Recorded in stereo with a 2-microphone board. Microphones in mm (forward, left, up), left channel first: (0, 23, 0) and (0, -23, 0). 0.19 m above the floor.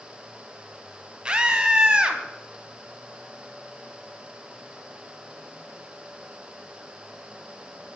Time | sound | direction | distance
1.2 | a scream | 25° right (ahead or behind) | 1.6 m